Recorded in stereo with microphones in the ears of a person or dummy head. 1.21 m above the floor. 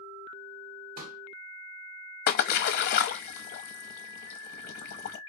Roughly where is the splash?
Left.